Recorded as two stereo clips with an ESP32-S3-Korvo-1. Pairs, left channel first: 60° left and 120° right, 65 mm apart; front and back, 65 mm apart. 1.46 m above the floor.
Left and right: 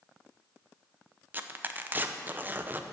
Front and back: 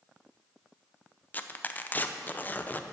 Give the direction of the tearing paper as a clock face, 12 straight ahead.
2 o'clock.